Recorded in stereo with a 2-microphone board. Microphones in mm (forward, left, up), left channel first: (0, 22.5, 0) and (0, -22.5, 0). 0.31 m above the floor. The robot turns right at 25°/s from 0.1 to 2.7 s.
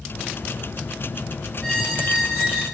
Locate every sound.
1.6 s a squeak: 20° left (ahead or behind), 1.0 m; by 2.6 s 45° left (ahead or behind), 1.0 m